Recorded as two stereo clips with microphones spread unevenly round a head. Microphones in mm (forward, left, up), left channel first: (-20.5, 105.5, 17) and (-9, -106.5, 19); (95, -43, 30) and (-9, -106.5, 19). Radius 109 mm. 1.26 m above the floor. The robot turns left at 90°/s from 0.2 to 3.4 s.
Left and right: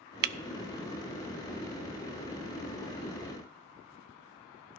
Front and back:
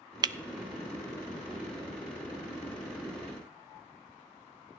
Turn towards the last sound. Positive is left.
turn(degrees=-25)